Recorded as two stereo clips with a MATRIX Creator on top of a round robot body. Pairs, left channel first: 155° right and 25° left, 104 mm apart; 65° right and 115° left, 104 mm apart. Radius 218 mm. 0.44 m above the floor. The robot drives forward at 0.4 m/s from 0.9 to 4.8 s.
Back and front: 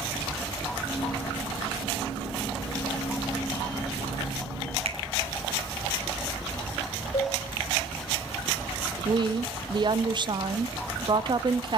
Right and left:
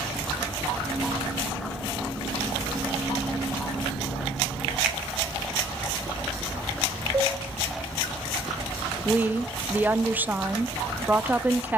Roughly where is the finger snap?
Ahead left.